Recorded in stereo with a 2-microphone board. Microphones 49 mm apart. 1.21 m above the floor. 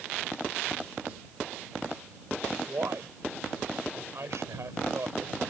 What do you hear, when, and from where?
2.7 s a man speaking: 70° right (ahead or behind)